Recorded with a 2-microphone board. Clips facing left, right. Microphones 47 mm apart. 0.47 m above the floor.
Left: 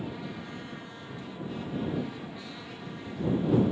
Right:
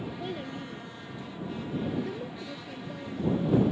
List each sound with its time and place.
0.2 s a child speaking: 80° right; by 3.7 s 70° right (ahead or behind)